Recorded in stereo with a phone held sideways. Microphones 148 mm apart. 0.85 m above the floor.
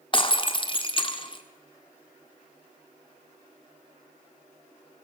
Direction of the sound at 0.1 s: 35° left (ahead or behind).